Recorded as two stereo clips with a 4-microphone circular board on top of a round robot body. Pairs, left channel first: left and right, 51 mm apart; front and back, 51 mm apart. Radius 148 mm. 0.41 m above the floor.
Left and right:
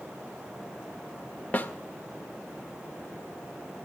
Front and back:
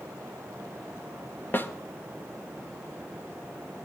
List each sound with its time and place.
1.5 s a snare drum: 35° left, 2.5 m